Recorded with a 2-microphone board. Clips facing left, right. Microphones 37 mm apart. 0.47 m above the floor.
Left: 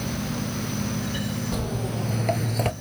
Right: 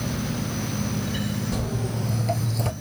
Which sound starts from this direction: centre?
Footsteps, at 1.5 s.